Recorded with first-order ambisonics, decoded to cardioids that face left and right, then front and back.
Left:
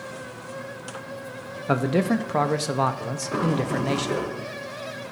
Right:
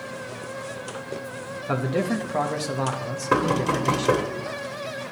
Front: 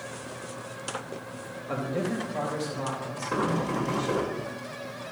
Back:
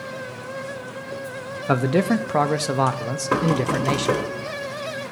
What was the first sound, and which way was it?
A man speaking, 165° left.